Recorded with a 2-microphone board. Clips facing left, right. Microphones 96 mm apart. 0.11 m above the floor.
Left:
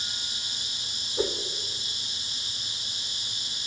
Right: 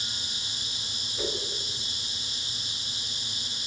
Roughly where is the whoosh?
Left.